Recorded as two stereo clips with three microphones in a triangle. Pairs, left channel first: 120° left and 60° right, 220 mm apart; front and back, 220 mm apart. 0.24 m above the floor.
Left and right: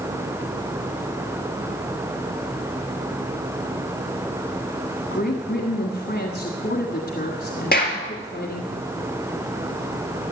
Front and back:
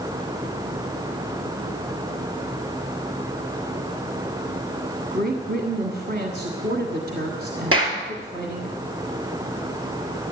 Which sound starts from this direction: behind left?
A woman speaking, at 5.1 s.